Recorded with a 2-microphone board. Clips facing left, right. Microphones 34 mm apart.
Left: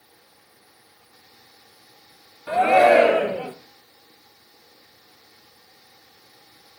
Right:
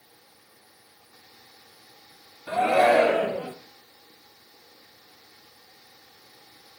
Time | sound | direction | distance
2.5 | a shout | 30° left (ahead or behind) | 1.5 m